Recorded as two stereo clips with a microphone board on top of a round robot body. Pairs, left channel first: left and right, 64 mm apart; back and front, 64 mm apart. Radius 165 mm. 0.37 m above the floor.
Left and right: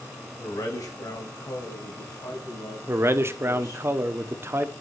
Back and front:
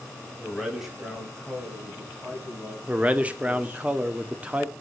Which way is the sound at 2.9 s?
60° right.